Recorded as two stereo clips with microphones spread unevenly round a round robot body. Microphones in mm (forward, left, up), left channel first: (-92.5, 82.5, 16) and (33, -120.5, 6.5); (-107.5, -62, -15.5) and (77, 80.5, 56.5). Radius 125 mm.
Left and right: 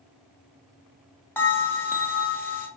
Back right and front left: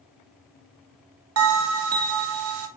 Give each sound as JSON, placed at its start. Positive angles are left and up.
{"t": 1.4, "sound": "a bell", "azimuth_deg": 40, "distance_m": 0.5}